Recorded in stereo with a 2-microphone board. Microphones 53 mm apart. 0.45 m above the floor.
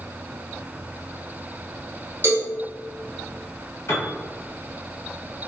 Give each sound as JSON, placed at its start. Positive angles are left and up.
{"t": 2.2, "sound": "a cowbell", "side_deg": -35, "distance_m": 1.5}
{"t": 3.9, "sound": "a piano", "side_deg": 60, "distance_m": 1.0}